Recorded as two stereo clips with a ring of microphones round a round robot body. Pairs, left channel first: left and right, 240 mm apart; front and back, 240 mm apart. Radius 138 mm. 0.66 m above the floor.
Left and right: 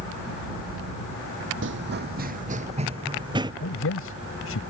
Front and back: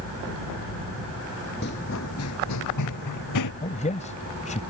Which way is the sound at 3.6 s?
60° left.